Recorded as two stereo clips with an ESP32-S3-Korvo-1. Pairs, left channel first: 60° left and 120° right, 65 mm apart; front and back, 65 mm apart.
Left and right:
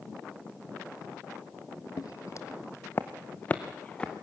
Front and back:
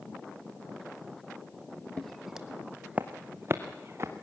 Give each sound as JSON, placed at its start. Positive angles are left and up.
{"t": 2.0, "sound": "footsteps", "azimuth_deg": 80, "distance_m": 0.9}